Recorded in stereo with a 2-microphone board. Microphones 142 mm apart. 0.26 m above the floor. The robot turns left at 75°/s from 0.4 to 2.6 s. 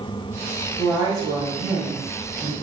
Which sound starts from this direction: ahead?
A woman speaking, at 0.8 s.